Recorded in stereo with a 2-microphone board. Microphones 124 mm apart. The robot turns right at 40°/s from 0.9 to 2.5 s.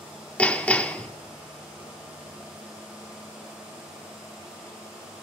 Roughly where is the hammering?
Centre.